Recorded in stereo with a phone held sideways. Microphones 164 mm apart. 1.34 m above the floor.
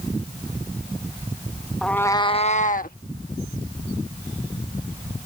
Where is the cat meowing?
Centre (ahead or behind); by 3.0 s 60° left (ahead or behind).